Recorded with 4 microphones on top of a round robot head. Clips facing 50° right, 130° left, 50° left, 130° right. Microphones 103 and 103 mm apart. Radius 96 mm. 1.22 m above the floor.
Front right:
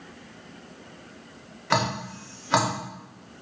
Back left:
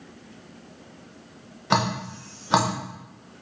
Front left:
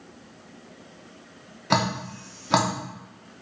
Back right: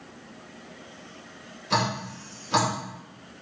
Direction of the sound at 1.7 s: 60° left.